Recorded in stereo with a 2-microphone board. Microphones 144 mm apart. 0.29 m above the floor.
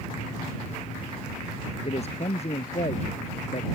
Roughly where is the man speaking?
Left.